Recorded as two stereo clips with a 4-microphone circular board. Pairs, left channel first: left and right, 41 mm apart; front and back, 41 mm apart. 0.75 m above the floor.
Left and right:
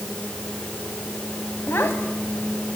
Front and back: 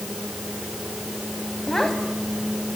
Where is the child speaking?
75° left, 3.5 m.